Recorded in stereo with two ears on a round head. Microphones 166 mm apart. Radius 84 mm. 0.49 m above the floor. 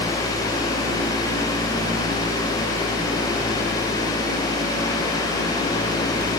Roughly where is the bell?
I don't hear a bell.